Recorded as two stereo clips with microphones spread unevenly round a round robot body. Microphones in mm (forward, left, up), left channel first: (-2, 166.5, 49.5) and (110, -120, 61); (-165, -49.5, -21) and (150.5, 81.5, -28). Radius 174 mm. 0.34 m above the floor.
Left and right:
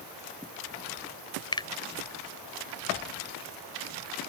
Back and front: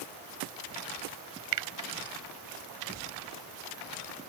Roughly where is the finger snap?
Ahead left.